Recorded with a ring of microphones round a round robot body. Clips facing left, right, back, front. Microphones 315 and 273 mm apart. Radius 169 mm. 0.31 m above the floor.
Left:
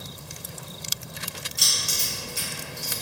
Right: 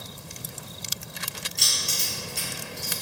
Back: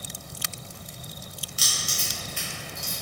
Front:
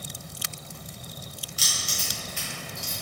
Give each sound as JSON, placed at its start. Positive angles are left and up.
{"t": 1.6, "sound": "keys jangling", "azimuth_deg": 175, "distance_m": 1.5}